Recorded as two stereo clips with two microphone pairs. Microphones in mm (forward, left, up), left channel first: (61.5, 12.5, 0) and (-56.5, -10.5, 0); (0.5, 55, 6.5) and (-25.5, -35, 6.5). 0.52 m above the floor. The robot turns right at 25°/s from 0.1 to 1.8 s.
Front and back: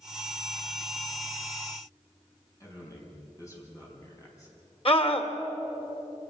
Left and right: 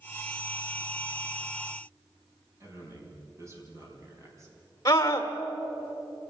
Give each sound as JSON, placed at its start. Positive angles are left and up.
{"t": 2.6, "sound": "a man speaking", "azimuth_deg": -50, "distance_m": 5.5}
{"t": 4.8, "sound": "a scream", "azimuth_deg": 30, "distance_m": 2.0}